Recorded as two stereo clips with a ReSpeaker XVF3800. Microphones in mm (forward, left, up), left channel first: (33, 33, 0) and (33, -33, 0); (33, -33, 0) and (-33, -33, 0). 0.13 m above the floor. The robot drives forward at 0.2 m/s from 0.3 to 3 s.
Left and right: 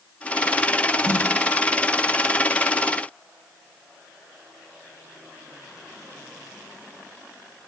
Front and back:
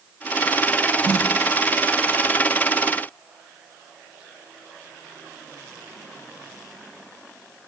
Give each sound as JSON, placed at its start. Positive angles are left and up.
{"t": 1.0, "sound": "a snare drum", "azimuth_deg": -115, "distance_m": 2.0}